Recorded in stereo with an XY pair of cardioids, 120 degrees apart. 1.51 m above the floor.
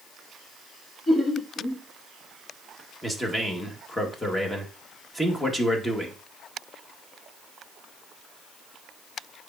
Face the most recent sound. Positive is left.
turn(degrees=10)